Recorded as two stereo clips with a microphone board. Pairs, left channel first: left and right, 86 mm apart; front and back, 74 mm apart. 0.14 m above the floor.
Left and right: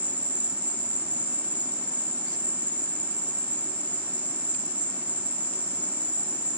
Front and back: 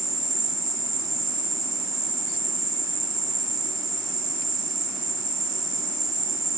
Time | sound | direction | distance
0.0 | an insect | 160° left | 1.0 m